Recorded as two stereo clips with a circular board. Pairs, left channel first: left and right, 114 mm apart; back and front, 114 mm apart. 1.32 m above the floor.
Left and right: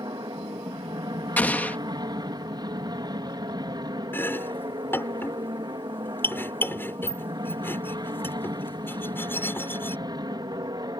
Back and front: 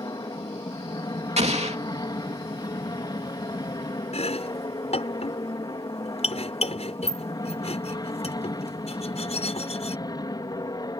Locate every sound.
0.0 s an aircraft: 135° right
1.4 s an explosion: 15° left
4.1 s chopping: 160° left